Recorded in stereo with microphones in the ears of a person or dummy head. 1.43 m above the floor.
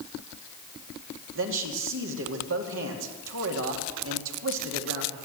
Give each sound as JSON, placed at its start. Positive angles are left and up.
{"t": 1.4, "sound": "a man speaking", "side_deg": -75, "distance_m": 2.0}